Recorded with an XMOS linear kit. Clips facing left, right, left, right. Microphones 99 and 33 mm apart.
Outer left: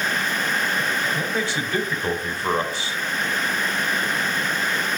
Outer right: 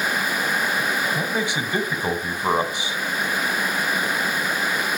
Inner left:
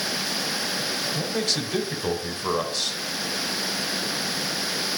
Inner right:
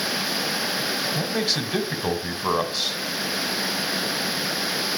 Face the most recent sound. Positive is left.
turn(degrees=-15)  # may be behind; listen again after turning